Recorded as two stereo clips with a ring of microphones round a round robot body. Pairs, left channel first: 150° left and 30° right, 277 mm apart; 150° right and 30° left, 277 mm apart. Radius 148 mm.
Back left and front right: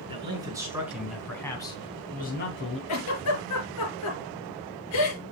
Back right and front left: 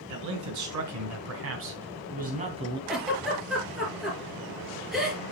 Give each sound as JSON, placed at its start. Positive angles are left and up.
{"t": 0.1, "sound": "a man speaking", "azimuth_deg": 40, "distance_m": 4.5}
{"t": 2.9, "sound": "a giggle", "azimuth_deg": 120, "distance_m": 4.0}